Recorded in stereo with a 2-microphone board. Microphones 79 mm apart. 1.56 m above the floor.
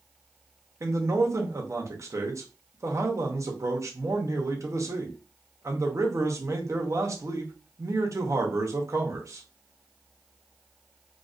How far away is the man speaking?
About 0.7 m.